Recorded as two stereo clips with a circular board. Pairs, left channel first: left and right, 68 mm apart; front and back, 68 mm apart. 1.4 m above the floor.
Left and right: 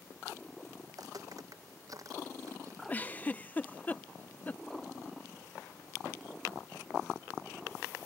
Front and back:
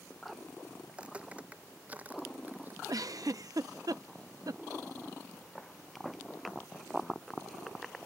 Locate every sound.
0.9 s footsteps: 110° right; by 2.8 s 120° right
2.9 s a giggle: 155° left